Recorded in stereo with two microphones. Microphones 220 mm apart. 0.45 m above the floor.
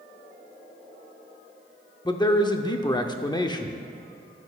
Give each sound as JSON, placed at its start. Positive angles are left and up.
{"t": 2.0, "sound": "a man speaking", "side_deg": 20, "distance_m": 0.7}